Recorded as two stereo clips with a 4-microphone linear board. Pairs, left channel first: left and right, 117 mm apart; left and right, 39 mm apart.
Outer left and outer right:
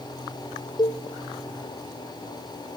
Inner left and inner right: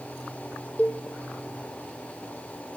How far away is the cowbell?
About 0.9 m.